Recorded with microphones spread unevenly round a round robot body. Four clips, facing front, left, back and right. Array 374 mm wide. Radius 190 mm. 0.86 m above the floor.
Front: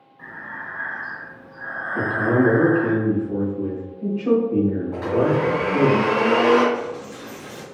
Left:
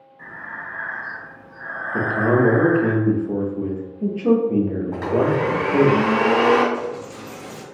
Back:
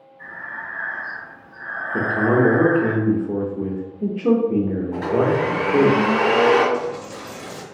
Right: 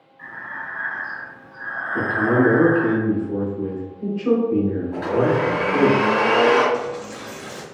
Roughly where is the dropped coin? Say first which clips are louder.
Right 1 dB, back 3 dB; behind.